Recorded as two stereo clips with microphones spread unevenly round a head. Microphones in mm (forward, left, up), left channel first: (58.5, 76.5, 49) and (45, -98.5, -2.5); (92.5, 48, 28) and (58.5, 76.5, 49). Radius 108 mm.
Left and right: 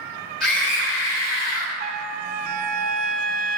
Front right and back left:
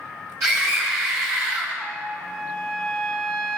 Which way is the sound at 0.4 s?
175° left.